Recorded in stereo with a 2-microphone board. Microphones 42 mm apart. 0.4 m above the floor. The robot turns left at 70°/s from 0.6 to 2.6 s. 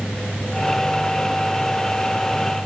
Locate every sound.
Only background noise.